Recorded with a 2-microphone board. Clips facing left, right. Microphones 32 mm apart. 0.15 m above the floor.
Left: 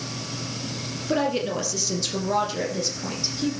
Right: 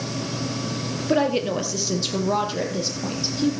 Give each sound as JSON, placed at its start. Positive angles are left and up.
{"t": 1.1, "sound": "a woman speaking", "side_deg": -15, "distance_m": 2.5}